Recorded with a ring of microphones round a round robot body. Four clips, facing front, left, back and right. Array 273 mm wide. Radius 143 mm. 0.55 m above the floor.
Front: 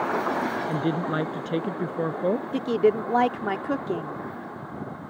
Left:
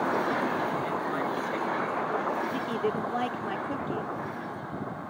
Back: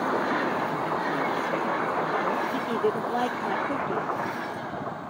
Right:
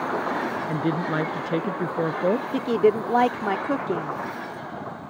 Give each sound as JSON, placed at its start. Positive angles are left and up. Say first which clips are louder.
{"t": 0.7, "sound": "a woman speaking", "louder": "right 5 dB, front 1 dB", "azimuth_deg": -50}
{"t": 2.5, "sound": "a woman speaking", "louder": "right 9 dB, front 4 dB", "azimuth_deg": -60}